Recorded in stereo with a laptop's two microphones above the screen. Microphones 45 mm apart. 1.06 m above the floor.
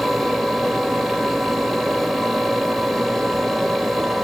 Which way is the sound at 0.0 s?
Centre (ahead or behind).